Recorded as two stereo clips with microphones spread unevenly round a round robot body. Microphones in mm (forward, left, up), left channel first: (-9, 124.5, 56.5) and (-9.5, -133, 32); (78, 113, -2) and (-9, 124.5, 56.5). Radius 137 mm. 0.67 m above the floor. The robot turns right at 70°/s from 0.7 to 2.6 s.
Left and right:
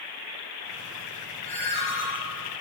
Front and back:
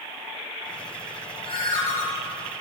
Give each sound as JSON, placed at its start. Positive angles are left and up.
{"t": 1.4, "sound": "a ringtone", "azimuth_deg": 20, "distance_m": 3.0}